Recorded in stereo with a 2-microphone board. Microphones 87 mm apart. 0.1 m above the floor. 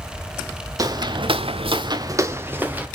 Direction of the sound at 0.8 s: 40° right (ahead or behind).